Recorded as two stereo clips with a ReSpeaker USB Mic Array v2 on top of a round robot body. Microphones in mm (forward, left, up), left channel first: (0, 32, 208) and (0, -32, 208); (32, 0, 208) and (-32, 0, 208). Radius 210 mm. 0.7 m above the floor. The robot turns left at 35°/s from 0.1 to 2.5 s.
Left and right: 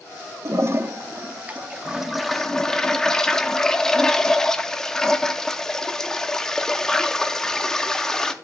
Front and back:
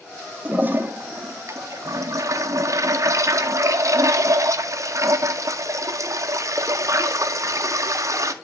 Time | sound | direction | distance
0.5 | a toilet flushing | 120° right | 1.0 m